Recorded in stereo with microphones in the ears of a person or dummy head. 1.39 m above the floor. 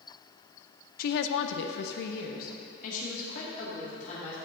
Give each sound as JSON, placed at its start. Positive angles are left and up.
{"t": 1.0, "sound": "a woman speaking", "side_deg": 55, "distance_m": 0.5}